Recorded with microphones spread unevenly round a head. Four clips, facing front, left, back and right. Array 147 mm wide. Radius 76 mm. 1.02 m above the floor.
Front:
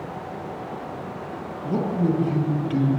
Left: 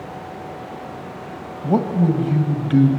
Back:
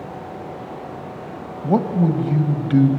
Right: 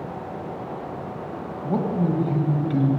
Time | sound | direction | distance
1.6 | a man speaking | 140° left | 1.5 m